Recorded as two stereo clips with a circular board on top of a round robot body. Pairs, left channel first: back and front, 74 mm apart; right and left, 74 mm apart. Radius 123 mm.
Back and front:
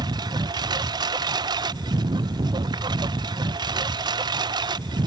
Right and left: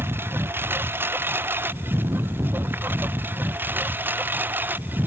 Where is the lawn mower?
25° left.